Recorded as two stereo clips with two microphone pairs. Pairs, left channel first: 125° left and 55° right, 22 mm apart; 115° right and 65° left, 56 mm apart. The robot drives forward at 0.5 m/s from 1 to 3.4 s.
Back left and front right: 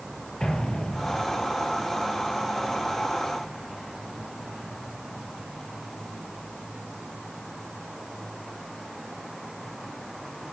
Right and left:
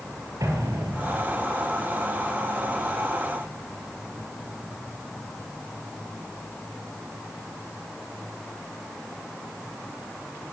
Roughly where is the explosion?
Left.